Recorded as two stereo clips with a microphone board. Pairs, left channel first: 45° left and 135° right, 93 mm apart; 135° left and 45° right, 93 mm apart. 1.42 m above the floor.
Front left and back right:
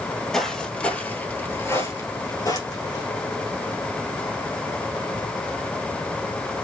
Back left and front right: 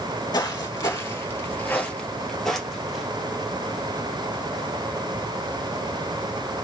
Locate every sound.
0.3 s footsteps: 125° left, 1.8 m; by 3.0 s 40° left, 1.9 m